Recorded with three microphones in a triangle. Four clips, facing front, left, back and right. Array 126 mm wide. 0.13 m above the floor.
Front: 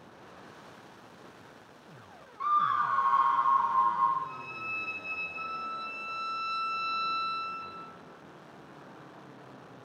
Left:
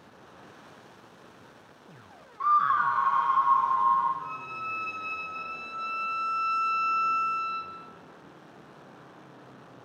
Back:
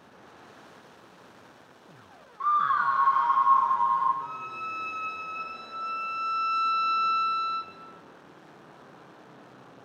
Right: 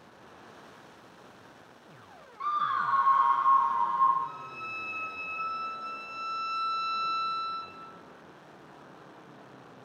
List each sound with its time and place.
2.4 s a scream: 120° left, 1.1 m; by 4.1 s 150° left, 3 m
4.2 s a violin: 150° left, 2.5 m